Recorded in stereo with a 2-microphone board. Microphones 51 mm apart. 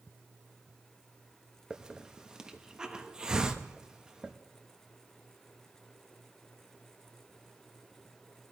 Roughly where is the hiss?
Centre.